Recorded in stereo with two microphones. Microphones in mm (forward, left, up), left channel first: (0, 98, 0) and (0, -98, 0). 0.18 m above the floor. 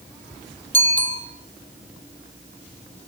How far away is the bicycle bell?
About 3.5 m.